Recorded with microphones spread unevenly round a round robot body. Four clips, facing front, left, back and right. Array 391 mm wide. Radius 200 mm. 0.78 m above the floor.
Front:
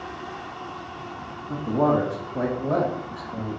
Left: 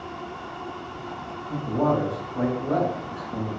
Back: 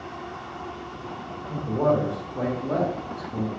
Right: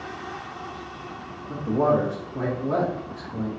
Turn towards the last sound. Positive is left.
turn(degrees=40)